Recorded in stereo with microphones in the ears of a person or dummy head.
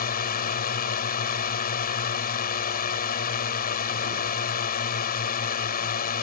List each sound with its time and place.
0.0 s a drone: 45° left (ahead or behind)